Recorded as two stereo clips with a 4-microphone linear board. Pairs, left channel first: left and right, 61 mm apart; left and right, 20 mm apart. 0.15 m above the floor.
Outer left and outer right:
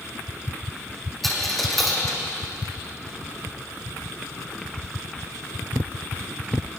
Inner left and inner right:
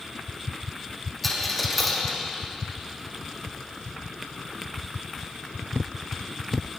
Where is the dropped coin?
Centre (ahead or behind), 2.5 m.